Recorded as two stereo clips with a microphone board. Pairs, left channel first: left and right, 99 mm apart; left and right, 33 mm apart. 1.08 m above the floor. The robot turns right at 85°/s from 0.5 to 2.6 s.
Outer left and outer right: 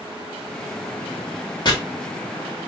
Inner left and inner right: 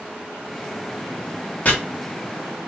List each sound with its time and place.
1.6 s chopping: 40° left (ahead or behind), 1.1 m; by 1.7 s 45° left (ahead or behind), 1.1 m